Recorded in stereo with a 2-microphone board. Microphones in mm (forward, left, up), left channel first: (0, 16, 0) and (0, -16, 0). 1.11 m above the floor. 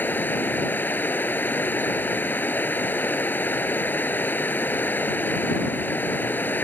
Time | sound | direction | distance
0.0 | running water | 75° left (ahead or behind) | ?